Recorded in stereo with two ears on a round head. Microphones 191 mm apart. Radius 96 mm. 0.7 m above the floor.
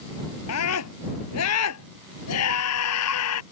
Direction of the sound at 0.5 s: 85° left.